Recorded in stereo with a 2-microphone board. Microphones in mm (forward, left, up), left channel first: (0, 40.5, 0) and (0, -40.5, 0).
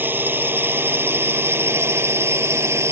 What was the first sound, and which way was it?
A drone, 25° right (ahead or behind).